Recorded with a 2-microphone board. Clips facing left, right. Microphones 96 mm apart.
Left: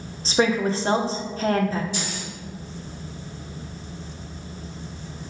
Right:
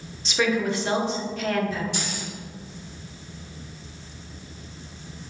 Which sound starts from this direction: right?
Keys jangling, at 1.9 s.